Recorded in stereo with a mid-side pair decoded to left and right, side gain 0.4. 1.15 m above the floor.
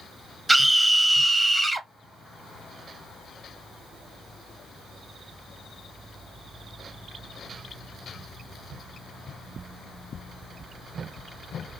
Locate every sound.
0.5 s a scream: 25° right, 1.1 m